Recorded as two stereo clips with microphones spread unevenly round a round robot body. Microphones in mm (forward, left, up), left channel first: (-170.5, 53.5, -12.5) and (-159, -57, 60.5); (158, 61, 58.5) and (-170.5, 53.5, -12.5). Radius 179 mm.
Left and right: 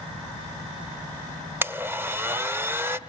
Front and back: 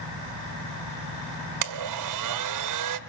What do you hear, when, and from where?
1.6 s a blender: 170° right, 1.3 m